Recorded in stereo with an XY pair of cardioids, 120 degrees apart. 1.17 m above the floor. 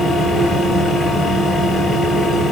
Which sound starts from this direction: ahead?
A fan, at 0.0 s.